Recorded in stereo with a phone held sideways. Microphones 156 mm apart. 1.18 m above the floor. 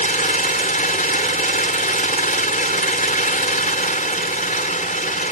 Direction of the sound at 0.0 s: 60° left (ahead or behind).